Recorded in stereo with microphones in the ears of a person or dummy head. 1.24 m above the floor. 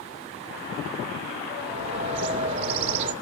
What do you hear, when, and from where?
1.6 s a bird: 30° right (ahead or behind), 3 m